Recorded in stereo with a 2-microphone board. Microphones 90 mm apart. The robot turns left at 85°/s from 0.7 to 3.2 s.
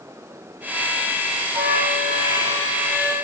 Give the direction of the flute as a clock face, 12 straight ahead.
2 o'clock.